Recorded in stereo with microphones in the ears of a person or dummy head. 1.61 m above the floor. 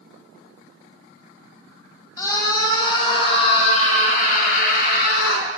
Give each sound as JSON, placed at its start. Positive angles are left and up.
{"t": 2.2, "sound": "a scream", "side_deg": 15, "distance_m": 4.0}